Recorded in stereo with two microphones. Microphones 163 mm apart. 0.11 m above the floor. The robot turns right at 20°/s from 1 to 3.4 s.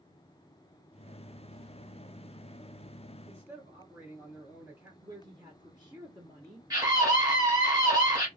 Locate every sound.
3.2 s a man speaking: 15° right (ahead or behind), 2 m
5.0 s a woman speaking: 25° right (ahead or behind), 1.6 m
6.7 s a scream: 25° right (ahead or behind), 1.5 m